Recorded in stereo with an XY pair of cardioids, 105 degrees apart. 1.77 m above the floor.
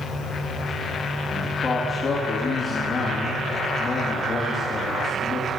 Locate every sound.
1.3 s a man speaking: 25° left, 3 m